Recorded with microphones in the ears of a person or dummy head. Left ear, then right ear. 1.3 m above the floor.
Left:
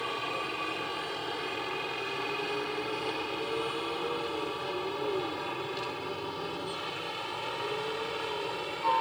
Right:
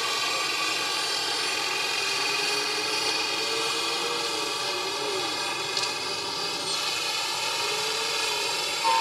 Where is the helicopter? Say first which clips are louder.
Right 7 dB; 70° right (ahead or behind); by 9.0 s 75° right (ahead or behind).